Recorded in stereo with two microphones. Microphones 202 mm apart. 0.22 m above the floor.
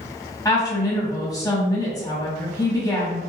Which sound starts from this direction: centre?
A woman speaking, at 0.5 s.